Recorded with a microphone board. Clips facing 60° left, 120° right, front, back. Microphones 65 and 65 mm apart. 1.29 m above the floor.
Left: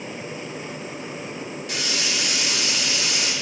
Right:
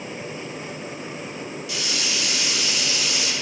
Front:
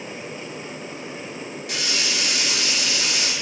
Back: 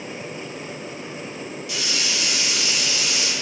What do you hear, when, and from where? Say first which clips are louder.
1.7 s a hiss: left 2 dB, front 1 dB; 25° left, 1.8 m